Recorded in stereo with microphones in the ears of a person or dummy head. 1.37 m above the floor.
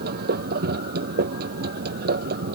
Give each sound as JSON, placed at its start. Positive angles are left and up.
{"t": 0.0, "sound": "a machine running", "side_deg": -60}